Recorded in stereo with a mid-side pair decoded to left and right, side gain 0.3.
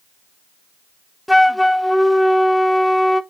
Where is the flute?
10° left, 0.8 m.